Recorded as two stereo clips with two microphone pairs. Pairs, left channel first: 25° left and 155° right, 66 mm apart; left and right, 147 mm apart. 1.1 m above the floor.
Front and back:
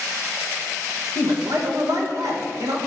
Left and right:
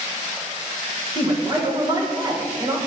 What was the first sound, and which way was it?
A man speaking, 145° right.